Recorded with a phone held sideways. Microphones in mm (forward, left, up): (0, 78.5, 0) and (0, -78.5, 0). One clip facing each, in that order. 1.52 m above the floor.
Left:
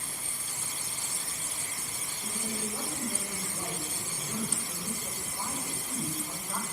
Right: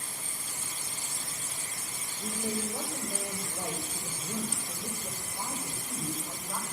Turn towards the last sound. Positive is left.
turn(degrees=-10)  # may be behind; listen again after turning